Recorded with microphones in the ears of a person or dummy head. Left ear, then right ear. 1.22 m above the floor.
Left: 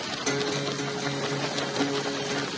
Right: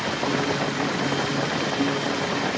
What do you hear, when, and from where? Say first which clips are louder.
0.3 s a guitar: even; 65° left (ahead or behind)